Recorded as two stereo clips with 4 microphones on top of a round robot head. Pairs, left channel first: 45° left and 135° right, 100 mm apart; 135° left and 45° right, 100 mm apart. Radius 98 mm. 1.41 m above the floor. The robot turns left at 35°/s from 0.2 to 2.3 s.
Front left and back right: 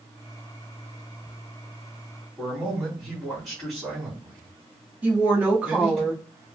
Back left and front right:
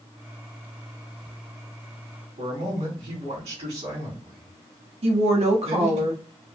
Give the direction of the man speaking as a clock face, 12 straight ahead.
2 o'clock.